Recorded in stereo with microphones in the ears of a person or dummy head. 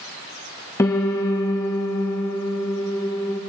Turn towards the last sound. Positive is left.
turn(degrees=10)  # may be behind; listen again after turning